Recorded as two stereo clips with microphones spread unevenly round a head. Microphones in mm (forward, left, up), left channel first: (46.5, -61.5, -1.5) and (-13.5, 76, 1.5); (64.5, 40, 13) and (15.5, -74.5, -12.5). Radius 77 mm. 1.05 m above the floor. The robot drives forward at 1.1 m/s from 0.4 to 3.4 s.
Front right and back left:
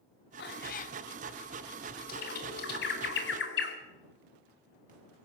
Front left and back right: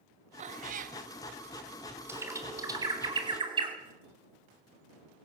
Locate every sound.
0.4 s a cat meowing: 85° right, 1.2 m; by 1.0 s 115° right, 1.3 m
2.1 s a bird: 45° right, 3.5 m; by 3.8 s 65° right, 2.5 m